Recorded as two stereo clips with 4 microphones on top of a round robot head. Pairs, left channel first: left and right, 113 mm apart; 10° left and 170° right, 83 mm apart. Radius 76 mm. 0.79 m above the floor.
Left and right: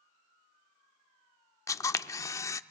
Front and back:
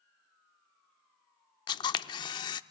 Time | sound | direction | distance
1.7 | a camera shutter | 30° left | 0.5 m